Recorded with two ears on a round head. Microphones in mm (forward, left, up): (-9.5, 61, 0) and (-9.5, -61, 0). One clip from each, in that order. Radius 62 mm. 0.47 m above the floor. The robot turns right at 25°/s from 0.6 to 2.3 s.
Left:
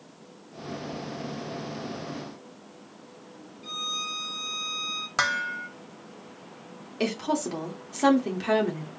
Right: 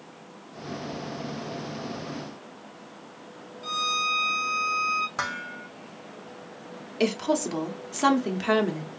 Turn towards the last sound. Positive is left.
turn(degrees=-20)  # may be behind; listen again after turning